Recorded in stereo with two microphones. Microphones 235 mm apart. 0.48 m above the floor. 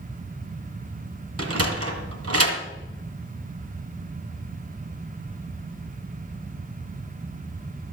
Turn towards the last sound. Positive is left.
turn(degrees=-85)